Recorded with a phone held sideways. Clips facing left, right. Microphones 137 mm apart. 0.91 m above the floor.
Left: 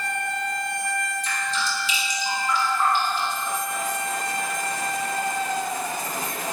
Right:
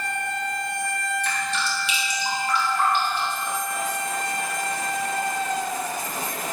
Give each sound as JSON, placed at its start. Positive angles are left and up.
{"t": 1.2, "sound": "dripping", "side_deg": -70, "distance_m": 5.5}